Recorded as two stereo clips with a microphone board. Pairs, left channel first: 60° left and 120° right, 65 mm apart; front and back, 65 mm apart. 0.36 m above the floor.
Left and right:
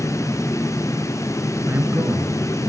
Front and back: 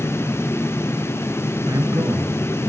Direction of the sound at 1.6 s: 170° right.